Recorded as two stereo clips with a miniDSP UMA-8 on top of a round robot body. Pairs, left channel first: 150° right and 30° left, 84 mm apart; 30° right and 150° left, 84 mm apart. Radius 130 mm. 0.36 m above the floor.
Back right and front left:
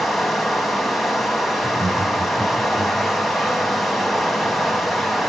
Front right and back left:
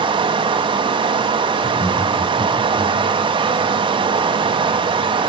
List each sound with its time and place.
0.0 s running water: 120° left, 1.5 m
1.6 s laughter: 40° right, 8.5 m